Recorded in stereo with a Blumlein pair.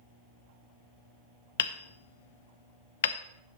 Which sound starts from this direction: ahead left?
Hammering, at 1.6 s.